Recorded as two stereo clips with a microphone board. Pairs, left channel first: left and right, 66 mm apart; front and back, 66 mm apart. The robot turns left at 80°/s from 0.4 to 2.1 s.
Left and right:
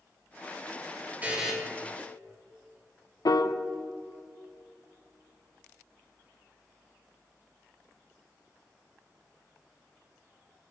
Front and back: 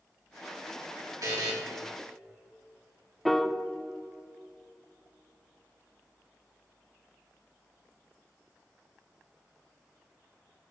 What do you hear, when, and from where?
1.2 s a buzzer: 155° right, 2 m; by 1.5 s straight behind, 2 m
3.2 s a piano: 90° left, 0.5 m